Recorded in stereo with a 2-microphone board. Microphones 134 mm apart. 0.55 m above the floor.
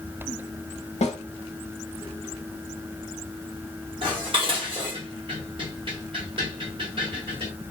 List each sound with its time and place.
1.0 s a snare drum: 55° left (ahead or behind), 0.7 m
4.0 s dishes clattering: 40° right (ahead or behind), 1.5 m